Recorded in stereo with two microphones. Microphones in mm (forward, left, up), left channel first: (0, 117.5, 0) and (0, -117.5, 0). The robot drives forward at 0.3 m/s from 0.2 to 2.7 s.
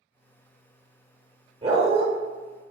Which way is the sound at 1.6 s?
25° right (ahead or behind).